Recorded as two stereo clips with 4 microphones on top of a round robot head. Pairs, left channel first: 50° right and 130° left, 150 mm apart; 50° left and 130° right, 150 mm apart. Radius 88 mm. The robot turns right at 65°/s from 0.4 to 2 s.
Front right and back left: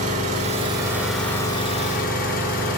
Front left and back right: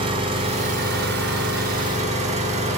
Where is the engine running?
175° left, 4.5 m; by 2.8 s 85° right, 4.5 m.